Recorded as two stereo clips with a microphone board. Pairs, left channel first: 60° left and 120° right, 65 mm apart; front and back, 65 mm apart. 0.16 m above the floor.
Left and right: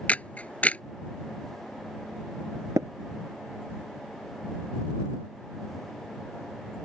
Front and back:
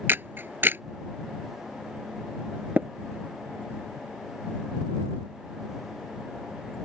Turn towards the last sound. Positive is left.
turn(degrees=-120)